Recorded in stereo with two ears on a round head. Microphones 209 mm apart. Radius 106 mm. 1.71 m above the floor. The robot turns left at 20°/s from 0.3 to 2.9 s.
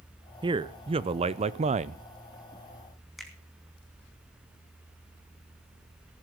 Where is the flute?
I don't hear a flute.